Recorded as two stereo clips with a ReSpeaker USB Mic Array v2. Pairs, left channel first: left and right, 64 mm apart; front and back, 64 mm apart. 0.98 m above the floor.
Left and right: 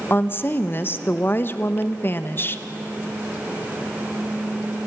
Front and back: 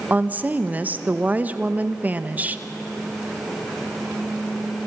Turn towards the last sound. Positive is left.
turn(degrees=130)